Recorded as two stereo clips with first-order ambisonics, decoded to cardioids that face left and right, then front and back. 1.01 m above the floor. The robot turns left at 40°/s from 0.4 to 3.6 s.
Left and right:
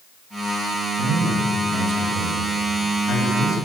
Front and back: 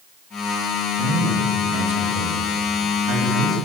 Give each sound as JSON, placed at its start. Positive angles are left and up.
{"t": 1.0, "sound": "a man speaking", "azimuth_deg": -105, "distance_m": 5.0}